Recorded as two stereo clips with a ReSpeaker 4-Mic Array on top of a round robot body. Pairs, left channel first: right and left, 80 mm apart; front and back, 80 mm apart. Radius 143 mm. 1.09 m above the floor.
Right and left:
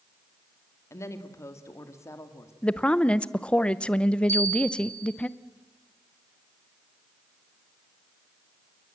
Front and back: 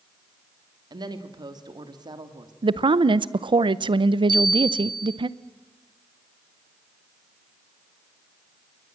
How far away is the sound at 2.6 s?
About 0.8 m.